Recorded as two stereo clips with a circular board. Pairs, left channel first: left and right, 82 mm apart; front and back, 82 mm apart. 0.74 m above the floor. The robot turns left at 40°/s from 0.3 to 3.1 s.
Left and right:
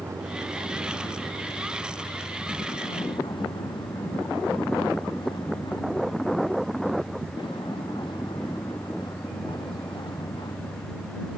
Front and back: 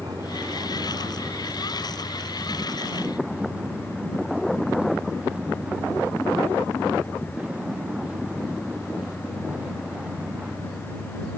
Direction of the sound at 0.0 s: 145° right.